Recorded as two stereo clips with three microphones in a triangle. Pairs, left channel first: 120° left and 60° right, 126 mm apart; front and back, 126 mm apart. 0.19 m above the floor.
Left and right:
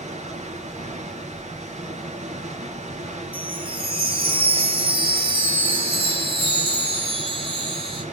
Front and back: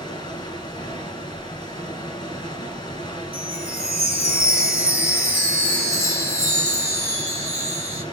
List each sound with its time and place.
0.0 s running water: 50° right, 2.5 m
3.3 s a chime: 100° right, 3.5 m